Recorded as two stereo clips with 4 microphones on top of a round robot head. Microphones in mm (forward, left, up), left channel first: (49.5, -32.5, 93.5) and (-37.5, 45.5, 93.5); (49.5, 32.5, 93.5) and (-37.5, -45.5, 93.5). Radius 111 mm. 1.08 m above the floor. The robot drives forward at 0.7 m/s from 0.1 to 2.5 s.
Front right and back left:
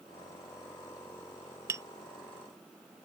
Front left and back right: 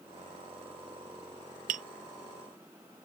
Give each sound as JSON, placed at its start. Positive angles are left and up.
{"t": 1.7, "sound": "tapping", "azimuth_deg": -150}